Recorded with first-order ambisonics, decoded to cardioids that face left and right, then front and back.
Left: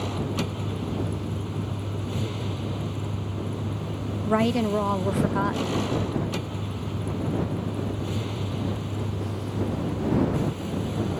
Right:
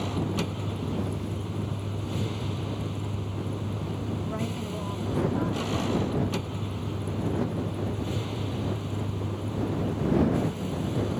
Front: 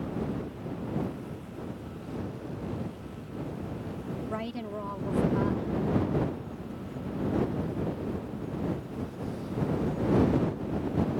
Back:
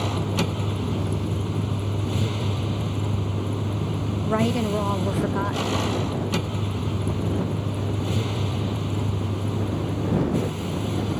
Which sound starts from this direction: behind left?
A woman speaking, at 4.2 s.